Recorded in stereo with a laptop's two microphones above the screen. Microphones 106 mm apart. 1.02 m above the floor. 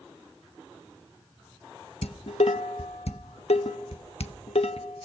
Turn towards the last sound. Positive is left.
turn(degrees=75)  # may be behind; listen again after turning